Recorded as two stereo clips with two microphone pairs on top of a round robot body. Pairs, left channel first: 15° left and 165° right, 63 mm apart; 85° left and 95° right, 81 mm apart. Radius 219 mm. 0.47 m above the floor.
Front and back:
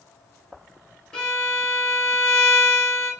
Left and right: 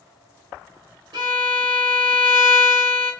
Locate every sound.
1.1 s a violin: 65° right, 0.9 m